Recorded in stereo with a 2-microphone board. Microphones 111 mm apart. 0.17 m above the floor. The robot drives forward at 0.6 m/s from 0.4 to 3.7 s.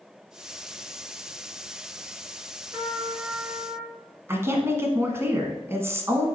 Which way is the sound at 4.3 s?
25° right (ahead or behind).